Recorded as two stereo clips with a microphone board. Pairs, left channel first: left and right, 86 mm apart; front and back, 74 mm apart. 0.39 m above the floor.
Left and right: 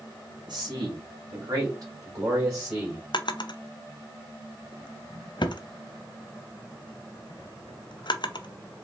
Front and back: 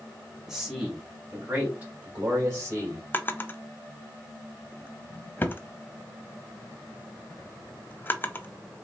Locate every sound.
0.5 s a man speaking: 95° right, 2.5 m; by 3.0 s 145° right, 2 m
3.1 s a drawer: 60° left, 0.5 m